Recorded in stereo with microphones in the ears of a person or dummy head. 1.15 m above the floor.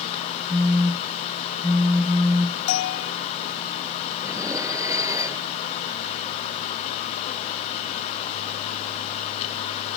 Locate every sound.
0.5 s a phone buzzing: 5° left (ahead or behind)
2.7 s a bell: 85° left
4.2 s dishes clattering: 15° right (ahead or behind)